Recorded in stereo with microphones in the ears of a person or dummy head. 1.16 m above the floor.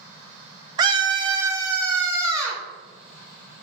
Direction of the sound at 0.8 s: 25° right (ahead or behind).